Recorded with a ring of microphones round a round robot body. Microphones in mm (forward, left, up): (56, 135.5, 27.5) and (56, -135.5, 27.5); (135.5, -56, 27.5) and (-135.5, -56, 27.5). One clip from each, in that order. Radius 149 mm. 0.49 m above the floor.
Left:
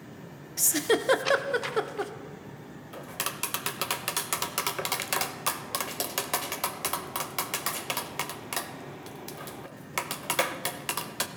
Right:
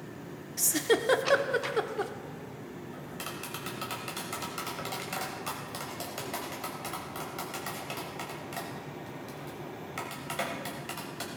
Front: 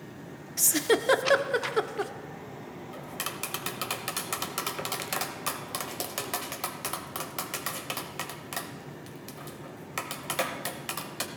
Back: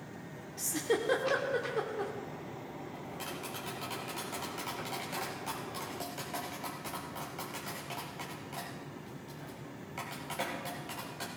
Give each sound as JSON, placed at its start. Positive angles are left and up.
{"t": 0.6, "sound": "a giggle", "azimuth_deg": 15, "distance_m": 0.6}
{"t": 2.9, "sound": "tapping", "azimuth_deg": 50, "distance_m": 0.7}